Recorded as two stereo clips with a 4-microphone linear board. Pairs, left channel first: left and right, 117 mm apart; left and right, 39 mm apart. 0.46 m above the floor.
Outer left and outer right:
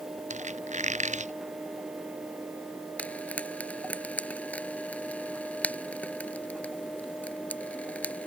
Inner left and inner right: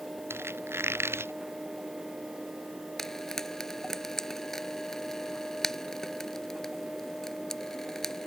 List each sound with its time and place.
0.3 s a squeak: 85° right
3.0 s frying: 10° left (ahead or behind)